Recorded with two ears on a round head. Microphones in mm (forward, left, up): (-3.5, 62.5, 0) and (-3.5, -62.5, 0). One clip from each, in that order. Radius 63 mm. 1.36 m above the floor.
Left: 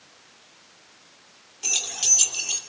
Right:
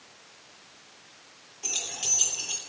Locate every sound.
1.6 s keys jangling: 40° left (ahead or behind), 3 m